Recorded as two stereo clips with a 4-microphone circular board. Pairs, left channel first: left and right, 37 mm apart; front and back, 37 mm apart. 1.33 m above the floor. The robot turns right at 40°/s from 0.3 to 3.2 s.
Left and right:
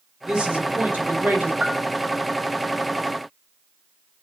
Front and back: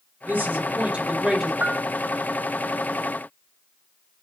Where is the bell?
150° right, 0.8 m; by 1.8 s 140° right, 0.8 m.